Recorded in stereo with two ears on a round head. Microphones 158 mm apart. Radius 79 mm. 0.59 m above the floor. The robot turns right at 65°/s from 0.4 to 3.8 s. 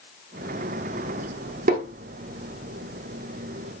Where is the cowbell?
I don't hear a cowbell.